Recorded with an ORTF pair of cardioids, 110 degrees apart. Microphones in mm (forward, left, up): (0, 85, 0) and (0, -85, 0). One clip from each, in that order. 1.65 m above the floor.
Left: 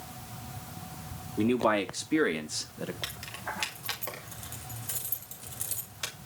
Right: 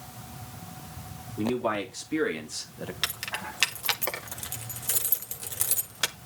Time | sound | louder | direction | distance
1.4 | a man speaking | left 2 dB | 30° left | 3.5 m
3.0 | keys jangling | right 10 dB | 50° right | 2 m